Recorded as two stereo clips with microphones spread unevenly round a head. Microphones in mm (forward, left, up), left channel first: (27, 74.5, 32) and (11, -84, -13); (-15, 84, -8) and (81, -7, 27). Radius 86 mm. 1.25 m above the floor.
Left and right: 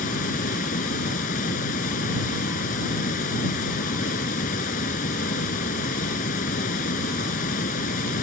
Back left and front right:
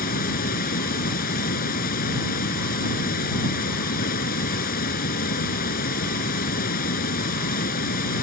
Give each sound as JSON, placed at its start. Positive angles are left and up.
{"t": 0.0, "sound": "running water", "azimuth_deg": 125}